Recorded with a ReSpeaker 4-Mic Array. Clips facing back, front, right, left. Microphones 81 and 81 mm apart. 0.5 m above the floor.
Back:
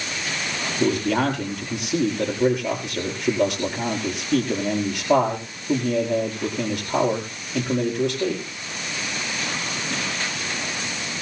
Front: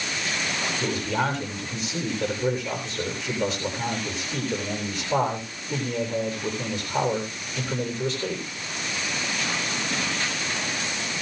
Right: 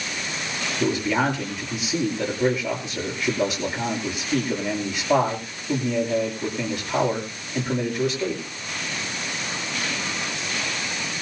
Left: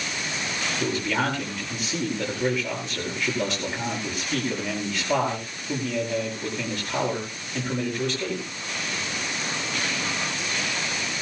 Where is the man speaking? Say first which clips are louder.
Back 7 dB, right 4 dB; 170° right, 9 m.